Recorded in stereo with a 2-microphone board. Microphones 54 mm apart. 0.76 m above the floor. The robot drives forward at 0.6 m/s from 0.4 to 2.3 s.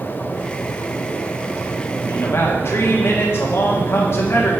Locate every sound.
2.1 s a man speaking: 50° left (ahead or behind), 1.6 m